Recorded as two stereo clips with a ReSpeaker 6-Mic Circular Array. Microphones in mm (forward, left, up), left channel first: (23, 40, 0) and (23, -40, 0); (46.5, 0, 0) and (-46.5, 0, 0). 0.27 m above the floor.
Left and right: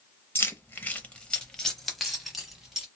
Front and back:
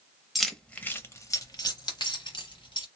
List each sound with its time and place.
0.3 s keys jangling: 95° left, 0.6 m; by 2.9 s 5° right, 1.3 m